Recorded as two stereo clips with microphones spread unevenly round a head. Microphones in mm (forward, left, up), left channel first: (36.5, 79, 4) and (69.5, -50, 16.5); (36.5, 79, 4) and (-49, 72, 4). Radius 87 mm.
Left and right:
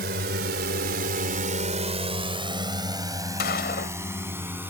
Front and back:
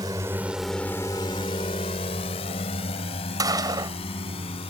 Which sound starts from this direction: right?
A drone, at 0.0 s.